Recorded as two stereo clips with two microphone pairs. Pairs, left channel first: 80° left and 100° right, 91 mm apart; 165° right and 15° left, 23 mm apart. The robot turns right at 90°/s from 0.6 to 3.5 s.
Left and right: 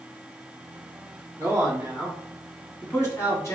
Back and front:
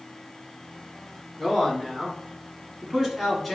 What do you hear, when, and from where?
1.4 s a man speaking: 90° right, 1.6 m; by 3.6 s 100° left, 1.6 m